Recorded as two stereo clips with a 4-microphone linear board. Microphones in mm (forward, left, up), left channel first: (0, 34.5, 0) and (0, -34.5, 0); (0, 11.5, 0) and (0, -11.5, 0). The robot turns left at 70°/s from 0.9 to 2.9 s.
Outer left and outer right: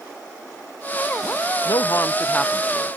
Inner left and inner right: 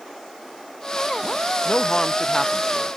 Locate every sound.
1.6 s a man speaking: 70° left; by 3.0 s 15° right